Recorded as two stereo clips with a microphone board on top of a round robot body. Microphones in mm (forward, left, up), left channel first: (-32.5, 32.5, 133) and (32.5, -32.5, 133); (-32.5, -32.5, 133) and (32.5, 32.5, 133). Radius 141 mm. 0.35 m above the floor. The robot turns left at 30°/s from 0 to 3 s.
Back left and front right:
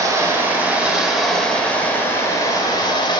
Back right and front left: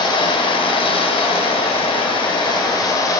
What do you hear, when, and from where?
0.0 s running water: 100° right, 2 m; by 3.2 s 170° left, 2 m